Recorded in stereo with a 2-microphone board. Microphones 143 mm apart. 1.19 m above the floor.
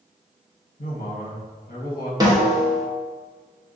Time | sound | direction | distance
0.8 | a man speaking | 80° left | 1.0 m
2.2 | a snare drum | 25° right (ahead or behind) | 0.7 m